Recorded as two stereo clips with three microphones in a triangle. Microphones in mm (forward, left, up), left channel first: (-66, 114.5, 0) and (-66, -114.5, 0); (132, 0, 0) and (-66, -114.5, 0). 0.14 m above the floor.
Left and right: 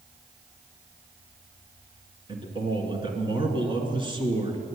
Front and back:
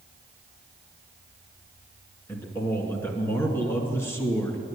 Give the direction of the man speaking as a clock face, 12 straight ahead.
1 o'clock.